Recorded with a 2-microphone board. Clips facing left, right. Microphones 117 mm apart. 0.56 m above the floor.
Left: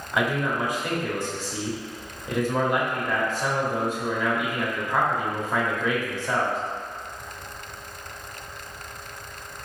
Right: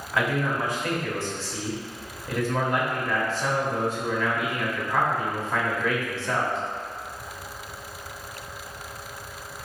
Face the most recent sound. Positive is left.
turn(degrees=15)  # may be behind; listen again after turning